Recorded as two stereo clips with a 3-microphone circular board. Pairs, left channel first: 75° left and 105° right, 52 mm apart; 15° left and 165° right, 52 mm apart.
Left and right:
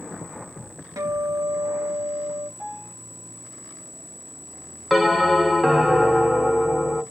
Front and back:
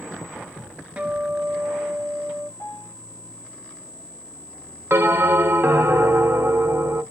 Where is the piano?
5° right, 1.1 m.